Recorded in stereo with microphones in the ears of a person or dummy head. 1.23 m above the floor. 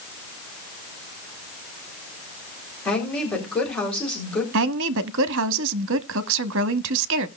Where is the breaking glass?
I don't hear breaking glass.